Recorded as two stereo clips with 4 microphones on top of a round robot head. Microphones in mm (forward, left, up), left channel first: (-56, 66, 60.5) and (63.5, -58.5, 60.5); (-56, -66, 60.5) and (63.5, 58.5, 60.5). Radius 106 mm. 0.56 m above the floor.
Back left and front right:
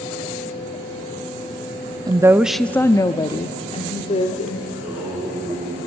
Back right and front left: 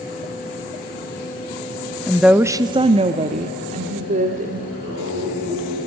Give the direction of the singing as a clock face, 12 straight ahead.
11 o'clock.